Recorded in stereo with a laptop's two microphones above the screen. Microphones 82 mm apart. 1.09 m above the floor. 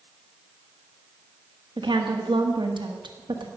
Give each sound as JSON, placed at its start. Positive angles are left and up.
{"t": 1.8, "sound": "a woman speaking", "side_deg": -75, "distance_m": 1.5}